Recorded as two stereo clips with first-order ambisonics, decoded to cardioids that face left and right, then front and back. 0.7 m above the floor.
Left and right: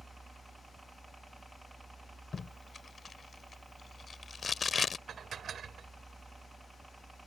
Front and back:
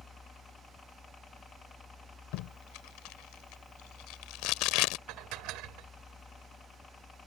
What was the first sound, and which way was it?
A helicopter, 15° right.